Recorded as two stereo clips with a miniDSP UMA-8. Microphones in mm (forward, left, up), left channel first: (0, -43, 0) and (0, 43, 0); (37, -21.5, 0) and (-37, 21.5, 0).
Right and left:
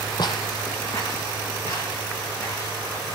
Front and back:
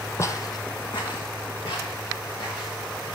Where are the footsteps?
80° right, 0.7 m; by 3.1 s 40° right, 4 m.